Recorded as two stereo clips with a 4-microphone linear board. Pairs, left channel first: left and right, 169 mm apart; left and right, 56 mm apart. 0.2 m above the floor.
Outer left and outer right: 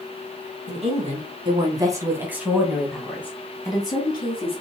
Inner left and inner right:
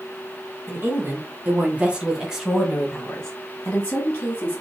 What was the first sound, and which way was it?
A woman speaking, 40° right (ahead or behind).